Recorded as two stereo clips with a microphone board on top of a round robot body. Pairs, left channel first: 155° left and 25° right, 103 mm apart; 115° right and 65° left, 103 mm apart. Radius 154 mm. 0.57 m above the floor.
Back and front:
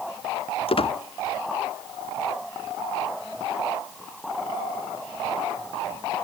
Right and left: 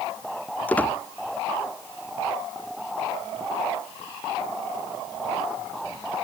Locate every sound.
0.7 s a squeak: 175° left